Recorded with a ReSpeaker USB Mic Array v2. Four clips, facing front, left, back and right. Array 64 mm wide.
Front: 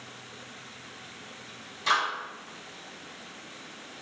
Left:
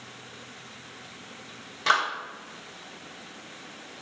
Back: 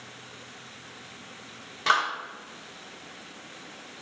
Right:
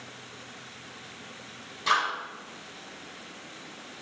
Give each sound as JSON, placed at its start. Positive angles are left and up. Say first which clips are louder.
{"t": 1.9, "sound": "a clap", "louder": "left 2 dB, back 2 dB", "azimuth_deg": 145, "distance_m": 1.3}